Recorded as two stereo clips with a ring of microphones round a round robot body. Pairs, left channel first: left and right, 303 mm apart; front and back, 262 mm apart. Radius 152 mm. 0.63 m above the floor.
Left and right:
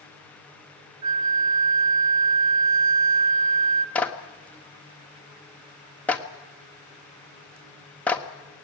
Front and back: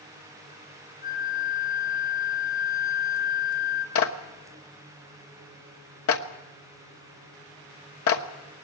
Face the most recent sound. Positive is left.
turn(degrees=5)